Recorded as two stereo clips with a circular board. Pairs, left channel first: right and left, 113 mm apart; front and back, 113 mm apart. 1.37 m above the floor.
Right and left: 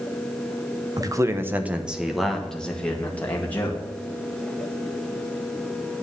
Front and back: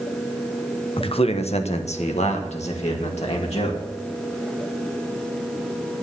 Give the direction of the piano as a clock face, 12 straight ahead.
No piano in this recording.